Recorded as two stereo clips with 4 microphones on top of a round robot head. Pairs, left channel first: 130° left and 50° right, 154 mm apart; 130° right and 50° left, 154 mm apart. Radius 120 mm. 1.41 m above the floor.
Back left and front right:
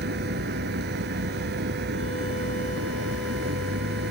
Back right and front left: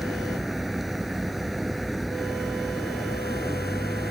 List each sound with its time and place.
0.0 s a vehicle: 40° right